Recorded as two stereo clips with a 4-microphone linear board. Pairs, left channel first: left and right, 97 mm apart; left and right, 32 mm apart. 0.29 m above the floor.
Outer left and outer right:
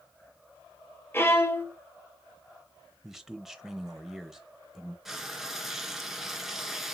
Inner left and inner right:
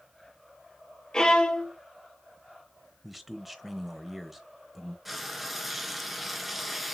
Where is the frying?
5° right (ahead or behind), 1.0 m.